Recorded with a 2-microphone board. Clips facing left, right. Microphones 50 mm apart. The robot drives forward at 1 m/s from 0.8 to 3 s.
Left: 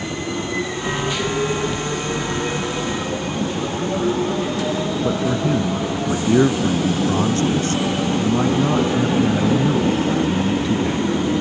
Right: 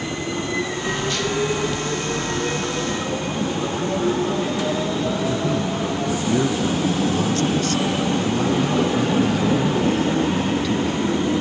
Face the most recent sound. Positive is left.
turn(degrees=25)  # may be behind; listen again after turning